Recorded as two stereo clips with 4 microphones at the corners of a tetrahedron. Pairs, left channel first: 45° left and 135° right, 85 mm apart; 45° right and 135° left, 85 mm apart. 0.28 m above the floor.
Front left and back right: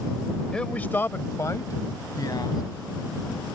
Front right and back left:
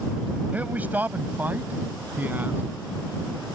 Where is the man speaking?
110° left; by 2.6 s 70° left.